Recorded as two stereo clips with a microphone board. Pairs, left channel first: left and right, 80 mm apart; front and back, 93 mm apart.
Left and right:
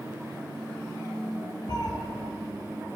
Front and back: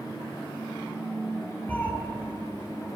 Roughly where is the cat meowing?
Left.